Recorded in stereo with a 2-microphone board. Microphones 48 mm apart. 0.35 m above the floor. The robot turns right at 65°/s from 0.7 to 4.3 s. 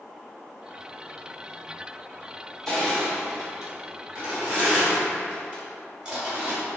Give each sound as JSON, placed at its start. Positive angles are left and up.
{"t": 2.7, "sound": "crushing", "side_deg": 5, "distance_m": 1.0}